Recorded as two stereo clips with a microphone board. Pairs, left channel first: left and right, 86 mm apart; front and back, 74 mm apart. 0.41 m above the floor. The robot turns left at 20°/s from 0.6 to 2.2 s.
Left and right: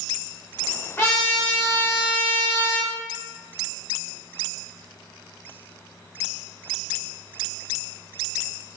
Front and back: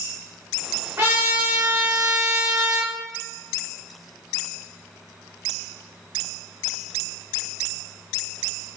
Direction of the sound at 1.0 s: 140° left.